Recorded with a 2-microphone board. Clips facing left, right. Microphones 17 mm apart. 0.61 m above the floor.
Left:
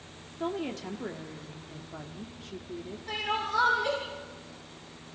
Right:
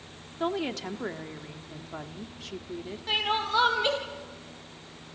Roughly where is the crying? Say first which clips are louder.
Right 4 dB; right.